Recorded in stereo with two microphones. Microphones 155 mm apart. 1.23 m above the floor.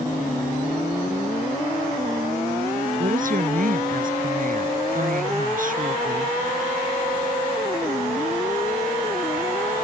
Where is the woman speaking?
60° right (ahead or behind).